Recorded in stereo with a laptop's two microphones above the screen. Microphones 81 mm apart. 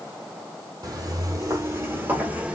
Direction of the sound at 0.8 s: 50° right (ahead or behind).